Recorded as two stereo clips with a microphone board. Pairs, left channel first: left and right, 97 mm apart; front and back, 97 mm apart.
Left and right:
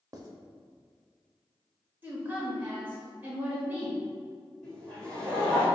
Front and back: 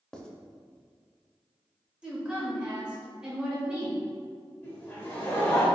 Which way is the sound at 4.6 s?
40° left.